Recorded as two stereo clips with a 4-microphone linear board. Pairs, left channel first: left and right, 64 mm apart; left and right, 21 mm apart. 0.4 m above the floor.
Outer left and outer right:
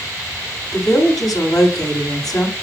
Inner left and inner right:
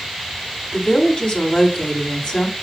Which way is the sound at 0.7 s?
65° left (ahead or behind).